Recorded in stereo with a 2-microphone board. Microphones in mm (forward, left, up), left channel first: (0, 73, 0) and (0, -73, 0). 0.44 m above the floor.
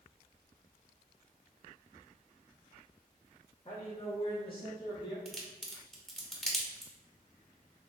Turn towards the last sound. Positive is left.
turn(degrees=0)  # may be behind; listen again after turning